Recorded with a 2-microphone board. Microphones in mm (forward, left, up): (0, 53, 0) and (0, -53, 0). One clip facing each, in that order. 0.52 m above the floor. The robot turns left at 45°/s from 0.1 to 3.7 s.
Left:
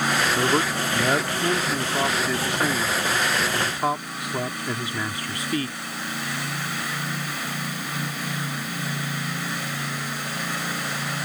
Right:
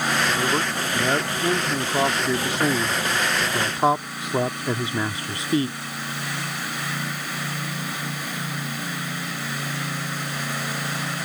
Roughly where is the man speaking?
Centre.